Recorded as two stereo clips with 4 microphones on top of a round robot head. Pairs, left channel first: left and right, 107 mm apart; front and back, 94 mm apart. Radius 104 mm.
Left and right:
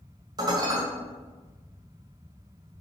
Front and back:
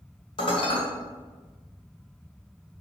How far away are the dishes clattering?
About 1.9 m.